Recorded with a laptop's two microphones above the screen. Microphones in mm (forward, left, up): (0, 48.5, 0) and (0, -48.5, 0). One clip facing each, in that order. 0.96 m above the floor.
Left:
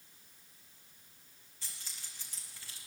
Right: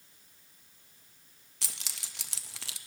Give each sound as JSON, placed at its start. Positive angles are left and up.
{"t": 1.6, "sound": "keys jangling", "side_deg": -85, "distance_m": 0.5}